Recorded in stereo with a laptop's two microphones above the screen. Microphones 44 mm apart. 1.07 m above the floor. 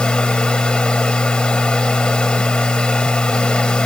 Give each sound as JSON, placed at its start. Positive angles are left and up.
{"t": 0.0, "sound": "a machine running", "side_deg": 20}